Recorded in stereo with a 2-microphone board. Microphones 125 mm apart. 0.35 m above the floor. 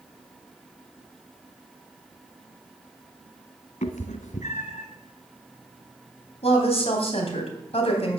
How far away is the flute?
I don't hear a flute.